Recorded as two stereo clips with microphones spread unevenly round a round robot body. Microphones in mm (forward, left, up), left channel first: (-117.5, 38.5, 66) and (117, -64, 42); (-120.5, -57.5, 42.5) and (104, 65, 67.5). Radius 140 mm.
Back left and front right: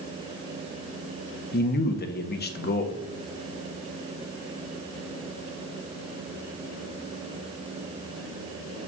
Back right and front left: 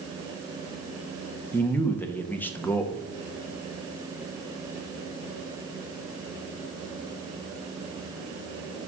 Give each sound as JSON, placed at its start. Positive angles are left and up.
{"t": 1.5, "sound": "a man speaking", "azimuth_deg": 140, "distance_m": 0.9}